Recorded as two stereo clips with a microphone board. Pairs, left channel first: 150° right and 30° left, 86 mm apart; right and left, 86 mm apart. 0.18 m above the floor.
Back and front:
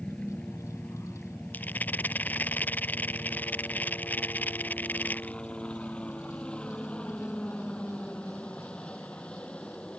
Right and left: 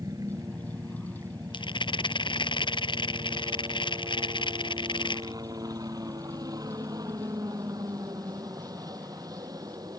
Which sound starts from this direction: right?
A rattle, at 1.5 s.